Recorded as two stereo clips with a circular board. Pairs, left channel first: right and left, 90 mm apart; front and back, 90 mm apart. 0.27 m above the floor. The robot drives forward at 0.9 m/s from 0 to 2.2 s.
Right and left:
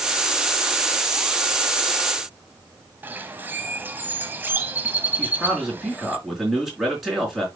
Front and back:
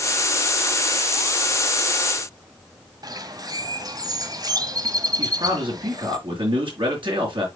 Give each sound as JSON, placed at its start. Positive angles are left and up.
{"t": 3.0, "sound": "a bird", "azimuth_deg": 155, "distance_m": 0.8}
{"t": 5.2, "sound": "a man speaking", "azimuth_deg": 180, "distance_m": 4.0}